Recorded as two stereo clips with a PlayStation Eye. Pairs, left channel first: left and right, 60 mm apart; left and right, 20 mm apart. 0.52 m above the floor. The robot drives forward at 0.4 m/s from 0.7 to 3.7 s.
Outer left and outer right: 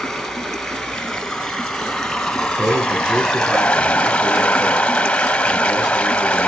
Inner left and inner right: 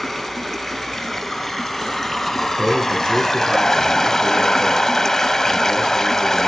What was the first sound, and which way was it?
Running water, 5° left (ahead or behind).